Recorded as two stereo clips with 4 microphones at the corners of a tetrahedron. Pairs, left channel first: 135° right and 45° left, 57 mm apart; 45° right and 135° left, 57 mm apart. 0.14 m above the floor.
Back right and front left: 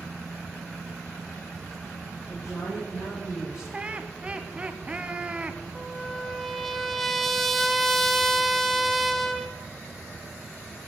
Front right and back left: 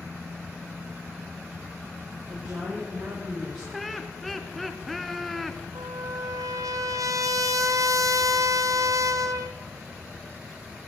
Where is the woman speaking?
160° right, 9 m; by 3.6 s 165° right, 10.5 m.